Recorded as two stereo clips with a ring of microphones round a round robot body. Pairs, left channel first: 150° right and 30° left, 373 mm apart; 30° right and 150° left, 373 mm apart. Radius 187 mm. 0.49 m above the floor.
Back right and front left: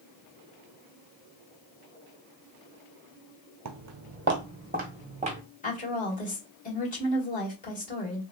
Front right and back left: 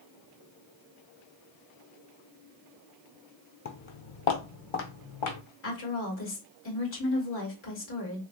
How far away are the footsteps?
About 0.6 m.